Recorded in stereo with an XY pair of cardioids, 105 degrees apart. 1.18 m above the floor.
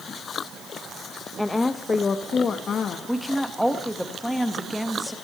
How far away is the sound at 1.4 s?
About 0.8 m.